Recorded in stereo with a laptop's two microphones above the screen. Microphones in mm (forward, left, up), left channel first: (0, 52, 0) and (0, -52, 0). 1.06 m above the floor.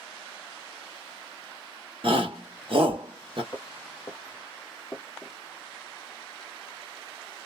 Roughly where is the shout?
Right.